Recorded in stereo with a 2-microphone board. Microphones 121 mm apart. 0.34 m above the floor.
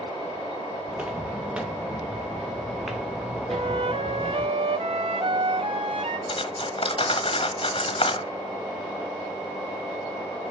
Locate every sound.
0.9 s footsteps: 15° right (ahead or behind), 1.4 m; by 4.5 s 5° left (ahead or behind), 3 m
3.5 s a flute: 50° right (ahead or behind), 0.6 m
6.3 s cutlery clinking: 50° left (ahead or behind), 1.2 m